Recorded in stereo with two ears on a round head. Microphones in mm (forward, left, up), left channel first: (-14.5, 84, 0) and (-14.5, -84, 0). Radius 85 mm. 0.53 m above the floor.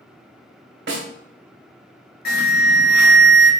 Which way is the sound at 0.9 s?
60° right (ahead or behind).